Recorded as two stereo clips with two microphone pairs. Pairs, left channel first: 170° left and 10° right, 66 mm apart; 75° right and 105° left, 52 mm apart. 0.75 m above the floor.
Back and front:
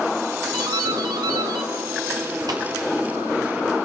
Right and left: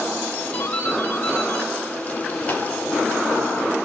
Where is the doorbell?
15° right, 5.5 m.